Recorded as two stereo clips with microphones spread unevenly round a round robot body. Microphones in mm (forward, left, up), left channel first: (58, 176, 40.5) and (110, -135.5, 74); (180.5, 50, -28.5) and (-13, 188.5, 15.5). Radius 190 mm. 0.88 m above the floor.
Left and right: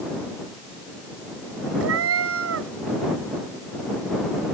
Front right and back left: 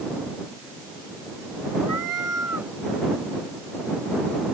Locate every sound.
1.8 s a cat meowing: 135° right